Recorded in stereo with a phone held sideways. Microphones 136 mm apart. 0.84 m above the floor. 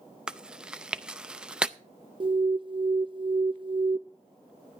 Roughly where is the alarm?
Right.